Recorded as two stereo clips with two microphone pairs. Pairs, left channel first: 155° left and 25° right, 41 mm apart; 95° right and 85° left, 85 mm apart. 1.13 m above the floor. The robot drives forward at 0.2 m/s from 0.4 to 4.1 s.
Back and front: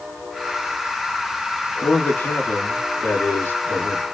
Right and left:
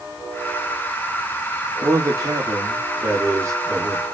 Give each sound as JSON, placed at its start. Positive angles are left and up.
{"t": 1.8, "sound": "a man speaking", "azimuth_deg": 135, "distance_m": 2.5}